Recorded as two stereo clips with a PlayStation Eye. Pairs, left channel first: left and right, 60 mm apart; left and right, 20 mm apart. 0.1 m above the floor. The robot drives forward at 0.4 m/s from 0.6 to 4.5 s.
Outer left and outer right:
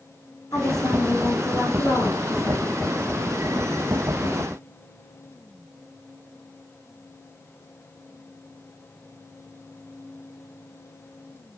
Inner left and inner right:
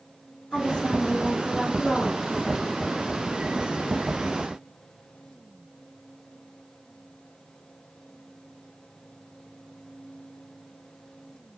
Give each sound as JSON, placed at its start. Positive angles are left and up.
{"t": 0.5, "sound": "a woman speaking", "side_deg": 75, "distance_m": 5.5}